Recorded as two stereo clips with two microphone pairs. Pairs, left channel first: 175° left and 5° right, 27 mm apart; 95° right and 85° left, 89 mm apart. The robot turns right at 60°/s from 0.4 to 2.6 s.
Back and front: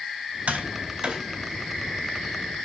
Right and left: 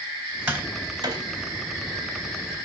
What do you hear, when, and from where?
0.5 s tapping: 15° left, 4.5 m; by 1.2 s 60° left, 4.5 m